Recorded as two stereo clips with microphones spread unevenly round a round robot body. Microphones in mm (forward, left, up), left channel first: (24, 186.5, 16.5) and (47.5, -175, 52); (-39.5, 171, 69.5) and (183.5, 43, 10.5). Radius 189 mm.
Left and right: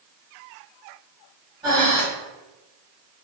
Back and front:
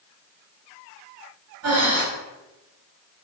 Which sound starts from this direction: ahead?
Breathing, at 1.6 s.